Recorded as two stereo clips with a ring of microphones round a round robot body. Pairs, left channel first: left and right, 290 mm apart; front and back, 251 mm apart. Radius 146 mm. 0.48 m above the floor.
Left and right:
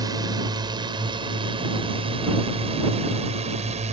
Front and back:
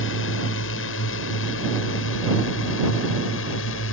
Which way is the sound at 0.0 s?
15° right.